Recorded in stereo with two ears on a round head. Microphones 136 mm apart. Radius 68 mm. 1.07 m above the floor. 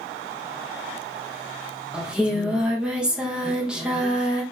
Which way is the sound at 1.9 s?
5° right (ahead or behind).